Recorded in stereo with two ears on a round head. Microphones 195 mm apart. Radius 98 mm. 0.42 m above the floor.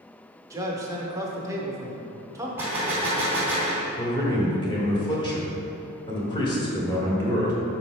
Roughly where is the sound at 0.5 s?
Centre.